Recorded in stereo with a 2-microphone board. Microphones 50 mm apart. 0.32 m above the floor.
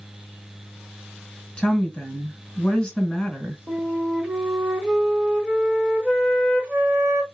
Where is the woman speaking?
15° left (ahead or behind), 1.5 m.